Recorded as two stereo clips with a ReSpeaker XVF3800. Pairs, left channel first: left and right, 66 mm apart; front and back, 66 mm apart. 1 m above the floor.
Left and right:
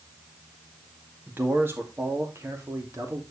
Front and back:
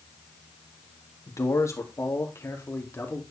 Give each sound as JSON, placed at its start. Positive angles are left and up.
{"t": 1.3, "sound": "a man speaking", "azimuth_deg": -30, "distance_m": 2.0}